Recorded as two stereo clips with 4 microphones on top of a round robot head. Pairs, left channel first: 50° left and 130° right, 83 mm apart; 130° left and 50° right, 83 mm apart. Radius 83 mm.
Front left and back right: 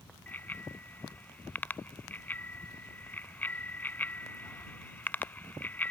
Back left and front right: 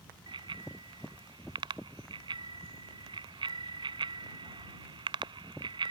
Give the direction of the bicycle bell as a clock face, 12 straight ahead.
1 o'clock.